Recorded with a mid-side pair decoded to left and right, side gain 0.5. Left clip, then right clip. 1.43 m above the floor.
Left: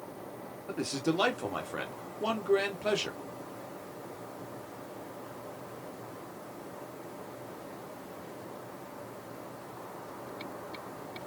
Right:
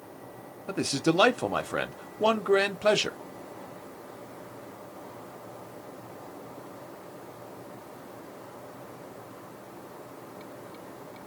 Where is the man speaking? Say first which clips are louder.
Right 5 dB; 50° right, 0.9 m.